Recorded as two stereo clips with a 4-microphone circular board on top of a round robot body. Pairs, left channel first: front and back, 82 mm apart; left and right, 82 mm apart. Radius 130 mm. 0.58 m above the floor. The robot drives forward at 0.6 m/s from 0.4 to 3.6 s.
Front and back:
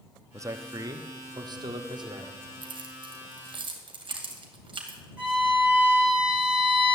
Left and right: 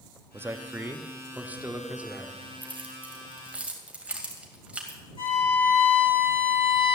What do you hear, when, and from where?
0.3 s a man speaking: 145° right, 1.1 m; by 2.3 s 165° right, 2 m
2.6 s keys jangling: 160° right, 1.7 m; by 5.0 s 165° right, 2.5 m
5.2 s a violin: 105° left, 8 m